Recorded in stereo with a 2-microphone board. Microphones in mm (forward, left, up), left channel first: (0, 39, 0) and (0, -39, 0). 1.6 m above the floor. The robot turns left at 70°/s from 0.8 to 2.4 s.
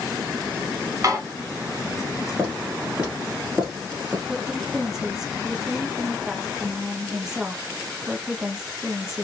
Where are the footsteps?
20° right (ahead or behind), 1.6 m; by 4.2 s centre (ahead or behind), 1.9 m.